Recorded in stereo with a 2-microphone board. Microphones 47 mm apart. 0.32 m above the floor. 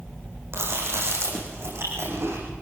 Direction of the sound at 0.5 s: 65° right (ahead or behind).